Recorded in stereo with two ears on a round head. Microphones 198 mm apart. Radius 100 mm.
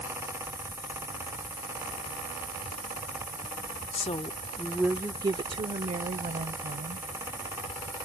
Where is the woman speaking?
30° left (ahead or behind); by 7.1 s 40° right (ahead or behind).